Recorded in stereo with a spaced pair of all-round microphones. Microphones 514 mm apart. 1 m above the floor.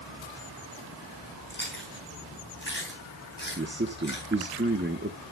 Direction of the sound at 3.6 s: 20° right (ahead or behind).